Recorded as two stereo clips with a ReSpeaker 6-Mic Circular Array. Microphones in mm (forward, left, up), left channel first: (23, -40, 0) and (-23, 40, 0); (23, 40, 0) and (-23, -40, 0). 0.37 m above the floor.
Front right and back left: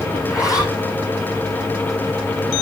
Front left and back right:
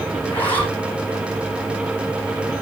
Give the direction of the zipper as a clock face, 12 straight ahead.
12 o'clock.